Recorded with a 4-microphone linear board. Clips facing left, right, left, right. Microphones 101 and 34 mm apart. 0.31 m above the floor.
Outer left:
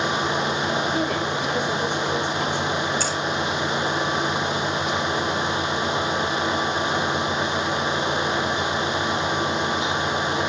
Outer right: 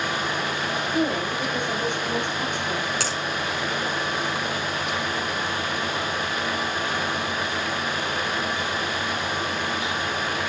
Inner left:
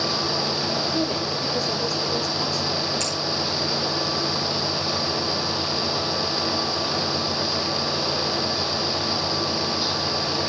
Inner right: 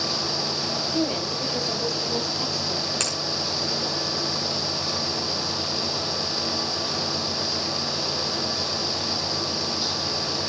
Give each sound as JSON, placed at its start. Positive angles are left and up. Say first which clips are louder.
{"t": 0.9, "sound": "a woman speaking", "louder": "even, inner left 1 dB", "side_deg": -15, "distance_m": 8.5}
{"t": 3.0, "sound": "a finger snap", "louder": "outer left 2 dB, inner left 1 dB", "side_deg": -70, "distance_m": 4.0}